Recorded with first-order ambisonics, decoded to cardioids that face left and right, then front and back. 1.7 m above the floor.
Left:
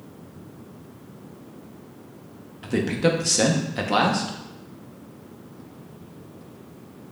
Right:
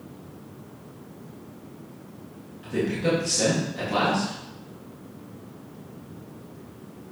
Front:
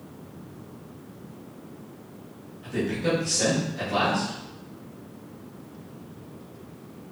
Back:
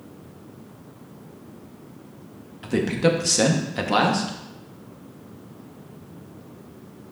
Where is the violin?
I don't hear a violin.